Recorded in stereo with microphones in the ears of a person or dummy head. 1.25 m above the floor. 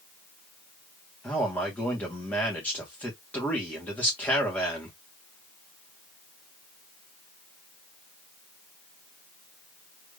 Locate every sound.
1.2 s a man speaking: 5° left (ahead or behind), 1.7 m